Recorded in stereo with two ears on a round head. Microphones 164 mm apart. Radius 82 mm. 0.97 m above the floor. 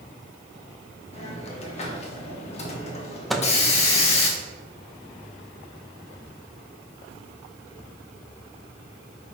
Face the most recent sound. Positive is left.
turn(degrees=0)  # may be behind; listen again after turning